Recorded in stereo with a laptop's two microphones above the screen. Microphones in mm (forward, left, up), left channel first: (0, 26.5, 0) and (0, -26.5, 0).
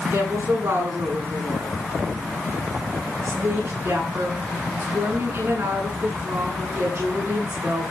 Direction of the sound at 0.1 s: 60° right (ahead or behind).